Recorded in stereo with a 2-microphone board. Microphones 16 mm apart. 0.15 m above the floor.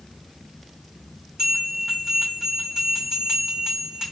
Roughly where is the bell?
Right.